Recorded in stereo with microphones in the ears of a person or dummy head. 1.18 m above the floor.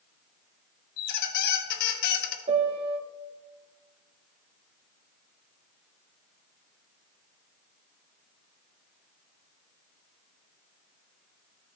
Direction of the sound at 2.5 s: 30° right (ahead or behind).